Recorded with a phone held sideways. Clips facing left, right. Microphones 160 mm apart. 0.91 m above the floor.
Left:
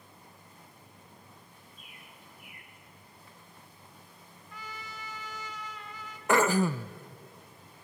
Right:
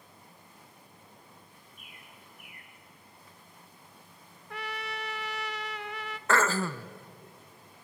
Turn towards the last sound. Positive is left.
turn(degrees=15)  # may be behind; listen again after turning